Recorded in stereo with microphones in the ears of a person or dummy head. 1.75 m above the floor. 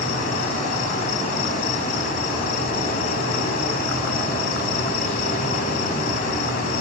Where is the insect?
50° left (ahead or behind), 1.2 m.